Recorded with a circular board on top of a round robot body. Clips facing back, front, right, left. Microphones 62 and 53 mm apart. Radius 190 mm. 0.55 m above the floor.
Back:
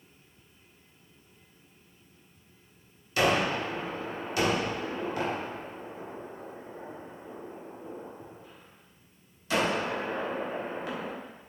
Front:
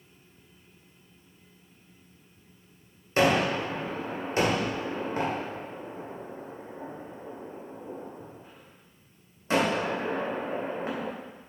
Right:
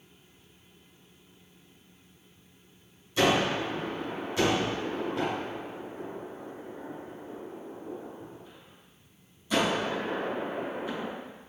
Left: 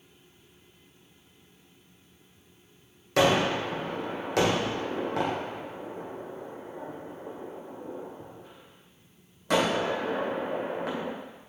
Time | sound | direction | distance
3.2 | a gunshot | 60° left | 2.5 m